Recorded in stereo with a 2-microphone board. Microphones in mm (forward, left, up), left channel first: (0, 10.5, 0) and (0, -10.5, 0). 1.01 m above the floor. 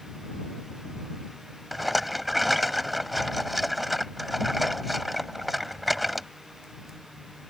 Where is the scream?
No scream in this recording.